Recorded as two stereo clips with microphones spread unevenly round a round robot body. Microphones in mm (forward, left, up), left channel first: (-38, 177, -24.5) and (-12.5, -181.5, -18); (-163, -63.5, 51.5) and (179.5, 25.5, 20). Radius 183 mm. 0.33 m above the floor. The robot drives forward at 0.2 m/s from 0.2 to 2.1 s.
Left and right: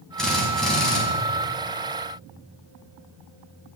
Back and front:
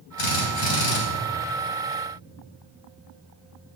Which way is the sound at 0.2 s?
Straight behind.